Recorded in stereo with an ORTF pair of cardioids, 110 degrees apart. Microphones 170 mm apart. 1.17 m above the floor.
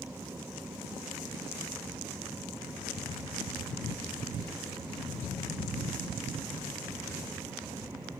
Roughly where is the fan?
Ahead.